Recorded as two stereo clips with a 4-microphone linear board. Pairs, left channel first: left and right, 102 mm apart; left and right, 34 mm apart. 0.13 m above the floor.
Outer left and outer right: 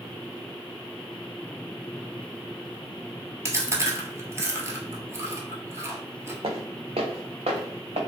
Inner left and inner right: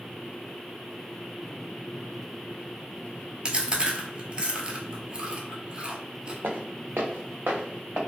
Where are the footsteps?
60° right (ahead or behind), 0.6 m; by 8.0 s 70° right (ahead or behind), 1.3 m.